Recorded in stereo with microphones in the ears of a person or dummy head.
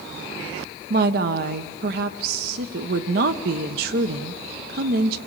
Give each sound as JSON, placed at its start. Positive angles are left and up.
{"t": 0.9, "sound": "a woman speaking", "side_deg": -60, "distance_m": 1.1}